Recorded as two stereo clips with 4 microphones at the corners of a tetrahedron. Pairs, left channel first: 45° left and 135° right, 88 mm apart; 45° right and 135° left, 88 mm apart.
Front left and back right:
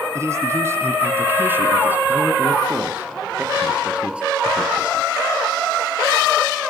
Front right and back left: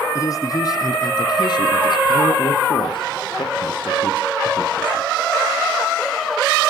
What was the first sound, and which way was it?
A man speaking, 85° right.